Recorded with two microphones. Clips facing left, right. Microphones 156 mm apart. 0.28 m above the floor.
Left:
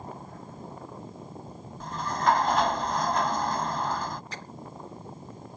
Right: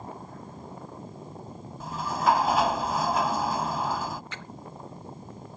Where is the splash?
40° left (ahead or behind).